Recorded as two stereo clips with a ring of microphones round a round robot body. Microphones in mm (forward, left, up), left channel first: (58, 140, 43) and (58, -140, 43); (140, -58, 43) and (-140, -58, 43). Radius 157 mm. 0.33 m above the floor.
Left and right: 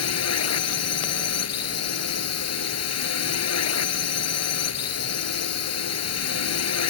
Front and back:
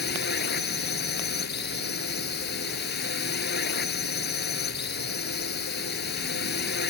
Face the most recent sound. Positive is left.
turn(degrees=60)